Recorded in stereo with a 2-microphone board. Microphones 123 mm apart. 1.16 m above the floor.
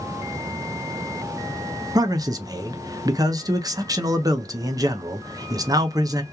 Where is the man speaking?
30° right (ahead or behind), 0.5 m.